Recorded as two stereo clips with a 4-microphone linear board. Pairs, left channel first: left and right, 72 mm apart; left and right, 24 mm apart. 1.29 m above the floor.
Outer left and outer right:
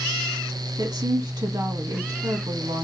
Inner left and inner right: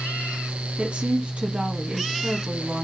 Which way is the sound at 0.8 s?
60° right (ahead or behind).